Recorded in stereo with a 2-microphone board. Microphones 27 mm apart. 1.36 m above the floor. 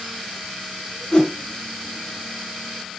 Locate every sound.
1.1 s a whoosh: 30° left (ahead or behind), 1.2 m